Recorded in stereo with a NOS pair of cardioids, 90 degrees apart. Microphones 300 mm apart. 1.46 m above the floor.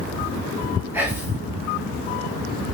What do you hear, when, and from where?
0.9 s whispering: 5° right, 1.8 m